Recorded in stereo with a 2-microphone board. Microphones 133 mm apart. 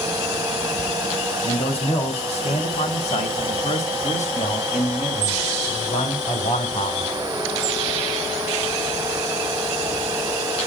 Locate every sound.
1.4 s a man speaking: 50° left (ahead or behind), 3.5 m; by 7.1 s 55° left (ahead or behind), 3.5 m